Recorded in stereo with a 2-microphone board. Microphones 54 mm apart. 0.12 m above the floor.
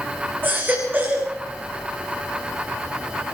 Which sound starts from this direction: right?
A baby crying, at 0.4 s.